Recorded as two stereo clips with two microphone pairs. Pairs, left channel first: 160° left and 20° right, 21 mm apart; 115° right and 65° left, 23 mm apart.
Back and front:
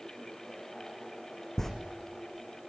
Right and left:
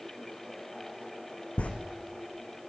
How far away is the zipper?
About 2.5 m.